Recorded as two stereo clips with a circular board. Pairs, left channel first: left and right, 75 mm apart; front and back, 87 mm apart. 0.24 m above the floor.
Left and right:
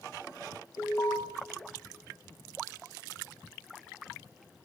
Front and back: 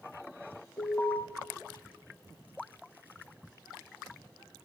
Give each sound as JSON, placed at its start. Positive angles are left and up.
{"t": 0.8, "sound": "an alarm", "azimuth_deg": 65, "distance_m": 1.9}